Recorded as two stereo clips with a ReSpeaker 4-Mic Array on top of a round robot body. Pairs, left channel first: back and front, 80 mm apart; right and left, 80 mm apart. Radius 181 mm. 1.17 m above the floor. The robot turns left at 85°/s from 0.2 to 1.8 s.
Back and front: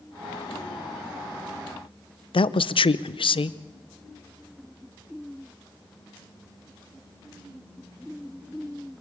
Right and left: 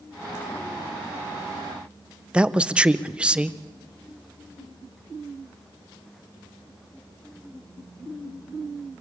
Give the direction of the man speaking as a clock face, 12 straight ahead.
6 o'clock.